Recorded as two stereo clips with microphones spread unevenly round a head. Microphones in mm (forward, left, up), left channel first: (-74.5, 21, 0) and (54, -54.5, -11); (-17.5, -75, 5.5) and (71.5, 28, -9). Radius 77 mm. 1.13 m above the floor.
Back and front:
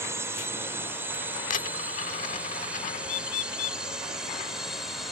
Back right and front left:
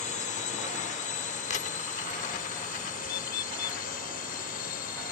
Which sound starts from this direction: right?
A drone, at 0.0 s.